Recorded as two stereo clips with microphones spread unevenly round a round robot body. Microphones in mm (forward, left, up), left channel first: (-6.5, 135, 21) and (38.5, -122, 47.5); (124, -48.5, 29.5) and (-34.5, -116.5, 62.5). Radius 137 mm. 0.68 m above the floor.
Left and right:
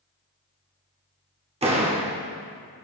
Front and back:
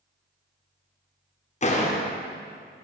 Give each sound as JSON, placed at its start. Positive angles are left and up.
{"t": 1.6, "sound": "a door slam", "azimuth_deg": -15, "distance_m": 1.8}